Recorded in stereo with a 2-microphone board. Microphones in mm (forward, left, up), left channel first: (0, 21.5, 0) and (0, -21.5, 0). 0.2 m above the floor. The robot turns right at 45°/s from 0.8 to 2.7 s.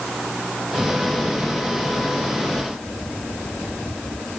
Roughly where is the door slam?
No door slam in this recording.